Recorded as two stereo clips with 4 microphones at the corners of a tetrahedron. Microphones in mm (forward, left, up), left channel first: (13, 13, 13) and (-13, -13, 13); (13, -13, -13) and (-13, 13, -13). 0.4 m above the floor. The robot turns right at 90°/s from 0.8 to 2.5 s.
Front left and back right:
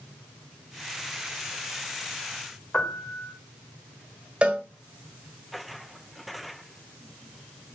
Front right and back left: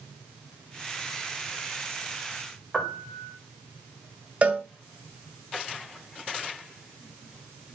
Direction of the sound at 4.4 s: 175° left.